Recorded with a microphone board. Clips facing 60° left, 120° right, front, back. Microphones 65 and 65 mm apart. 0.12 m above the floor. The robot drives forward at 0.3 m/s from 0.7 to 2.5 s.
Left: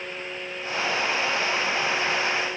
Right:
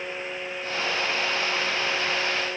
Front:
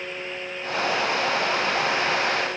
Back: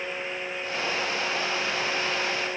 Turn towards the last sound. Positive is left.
No sound to turn to.